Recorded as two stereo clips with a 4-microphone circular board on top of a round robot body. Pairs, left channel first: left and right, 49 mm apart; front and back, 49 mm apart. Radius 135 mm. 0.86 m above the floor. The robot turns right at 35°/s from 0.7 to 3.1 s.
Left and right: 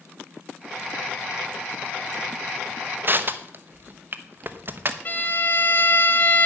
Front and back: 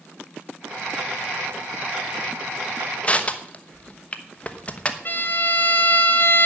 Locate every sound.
3.0 s crushing: 60° right, 1.3 m; by 5.0 s 55° right, 1.3 m
5.0 s a violin: 45° left, 2 m